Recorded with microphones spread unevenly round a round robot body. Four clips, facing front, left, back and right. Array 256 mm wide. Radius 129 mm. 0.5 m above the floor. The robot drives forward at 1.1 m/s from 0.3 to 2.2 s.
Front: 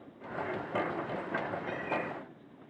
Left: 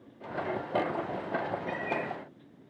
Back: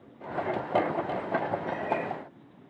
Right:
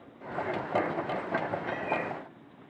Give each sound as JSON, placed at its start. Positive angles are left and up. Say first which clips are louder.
{"t": 1.7, "sound": "a cat meowing", "louder": "right 1 dB, back 5 dB", "azimuth_deg": -165, "distance_m": 5.5}